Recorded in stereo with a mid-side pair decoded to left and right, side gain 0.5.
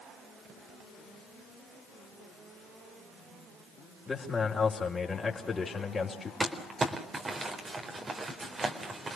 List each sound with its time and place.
4.1 s a man speaking: 25° left, 4.5 m
6.4 s crumpling: 30° right, 4 m